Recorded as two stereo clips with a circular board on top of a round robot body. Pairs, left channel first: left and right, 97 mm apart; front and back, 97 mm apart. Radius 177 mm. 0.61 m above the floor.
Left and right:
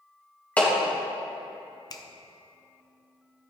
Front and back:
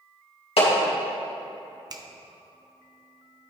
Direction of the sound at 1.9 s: 135° left.